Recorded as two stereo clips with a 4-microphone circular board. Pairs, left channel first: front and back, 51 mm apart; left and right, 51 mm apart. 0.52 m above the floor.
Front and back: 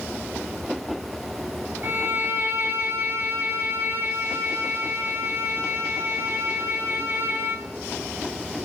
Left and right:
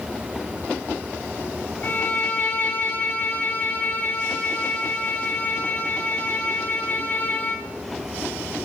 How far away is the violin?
About 3 m.